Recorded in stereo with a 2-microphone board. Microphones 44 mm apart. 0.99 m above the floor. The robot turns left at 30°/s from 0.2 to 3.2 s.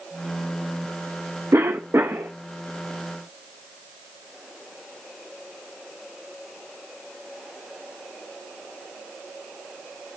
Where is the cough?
80° right, 0.7 m; by 2.3 s 60° right (ahead or behind), 0.7 m.